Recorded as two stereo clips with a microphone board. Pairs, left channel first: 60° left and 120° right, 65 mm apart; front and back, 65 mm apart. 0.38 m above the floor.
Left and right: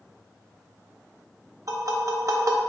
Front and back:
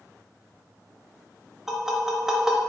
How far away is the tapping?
About 0.5 m.